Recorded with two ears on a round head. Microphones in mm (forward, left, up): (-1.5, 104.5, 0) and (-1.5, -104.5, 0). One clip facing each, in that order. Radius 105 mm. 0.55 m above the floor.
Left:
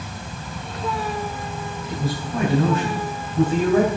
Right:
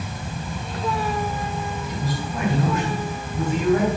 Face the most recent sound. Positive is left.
turn(degrees=30)  # may be behind; listen again after turning